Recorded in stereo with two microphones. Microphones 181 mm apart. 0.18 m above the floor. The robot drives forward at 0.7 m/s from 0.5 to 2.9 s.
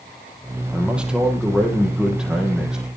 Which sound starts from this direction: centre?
A man speaking, at 0.7 s.